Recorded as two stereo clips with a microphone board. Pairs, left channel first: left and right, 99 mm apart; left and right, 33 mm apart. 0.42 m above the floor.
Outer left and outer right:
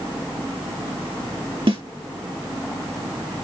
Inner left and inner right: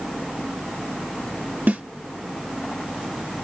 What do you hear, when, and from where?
1.7 s a snare drum: 65° right (ahead or behind), 2 m